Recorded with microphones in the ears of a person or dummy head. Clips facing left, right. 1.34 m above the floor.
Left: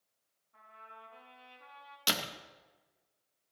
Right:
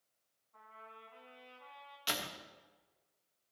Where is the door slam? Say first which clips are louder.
Left 4 dB; 65° left (ahead or behind), 1.4 m.